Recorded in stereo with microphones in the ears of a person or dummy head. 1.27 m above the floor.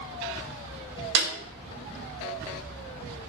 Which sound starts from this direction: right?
A snare drum, at 1.1 s.